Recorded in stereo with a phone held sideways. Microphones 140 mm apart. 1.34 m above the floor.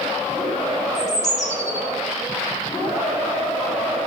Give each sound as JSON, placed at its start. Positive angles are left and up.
{"t": 0.9, "sound": "a bird", "side_deg": 60, "distance_m": 4.0}